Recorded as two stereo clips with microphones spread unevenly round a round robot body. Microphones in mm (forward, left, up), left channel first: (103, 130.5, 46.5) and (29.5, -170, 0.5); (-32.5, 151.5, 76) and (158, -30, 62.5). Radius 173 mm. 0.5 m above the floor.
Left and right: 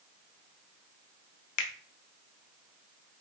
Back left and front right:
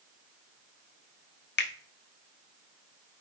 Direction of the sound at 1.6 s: 90° left.